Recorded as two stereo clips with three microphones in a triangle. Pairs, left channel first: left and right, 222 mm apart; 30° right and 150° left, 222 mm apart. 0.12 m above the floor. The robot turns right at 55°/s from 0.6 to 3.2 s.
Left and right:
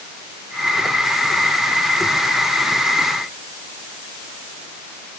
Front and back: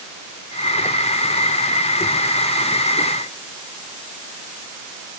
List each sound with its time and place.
Only background noise.